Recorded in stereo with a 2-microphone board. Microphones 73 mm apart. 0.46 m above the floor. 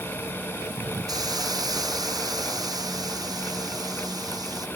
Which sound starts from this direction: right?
A hiss, at 1.1 s.